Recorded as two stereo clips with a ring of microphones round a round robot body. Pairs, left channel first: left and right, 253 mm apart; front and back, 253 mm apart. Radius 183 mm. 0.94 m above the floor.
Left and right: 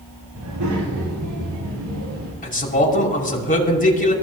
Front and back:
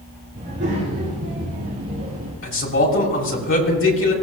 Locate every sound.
0.3 s a child speaking: 115° right, 6 m; by 2.3 s 130° right, 5.5 m
2.4 s a man speaking: 35° left, 6 m